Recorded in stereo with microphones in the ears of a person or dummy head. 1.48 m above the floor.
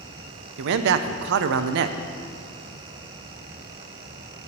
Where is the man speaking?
65° right (ahead or behind), 0.6 m.